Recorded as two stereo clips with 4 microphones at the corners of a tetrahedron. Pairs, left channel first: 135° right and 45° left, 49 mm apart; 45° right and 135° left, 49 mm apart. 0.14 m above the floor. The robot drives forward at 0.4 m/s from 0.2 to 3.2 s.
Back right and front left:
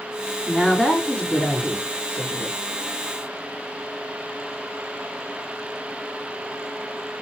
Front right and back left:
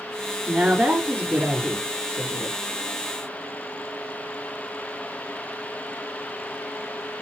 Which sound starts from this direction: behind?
A woman speaking, at 0.5 s.